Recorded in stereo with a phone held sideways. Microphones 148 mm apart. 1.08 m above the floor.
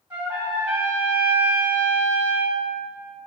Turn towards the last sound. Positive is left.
turn(degrees=-15)  # may be behind; listen again after turning